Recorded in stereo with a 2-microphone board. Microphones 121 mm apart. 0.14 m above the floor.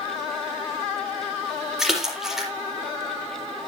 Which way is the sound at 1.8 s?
5° right (ahead or behind).